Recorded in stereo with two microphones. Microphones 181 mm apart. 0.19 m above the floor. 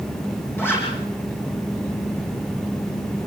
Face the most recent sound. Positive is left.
turn(degrees=10)  # may be behind; listen again after turning